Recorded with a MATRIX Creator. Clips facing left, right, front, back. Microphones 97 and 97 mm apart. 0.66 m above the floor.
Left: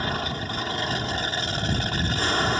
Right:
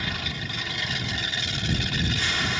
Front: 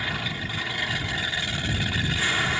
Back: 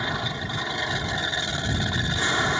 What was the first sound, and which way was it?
An aircraft, 120° left.